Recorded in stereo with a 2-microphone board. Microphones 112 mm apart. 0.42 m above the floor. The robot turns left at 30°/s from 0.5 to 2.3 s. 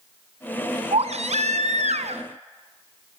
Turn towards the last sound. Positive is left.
turn(degrees=-110)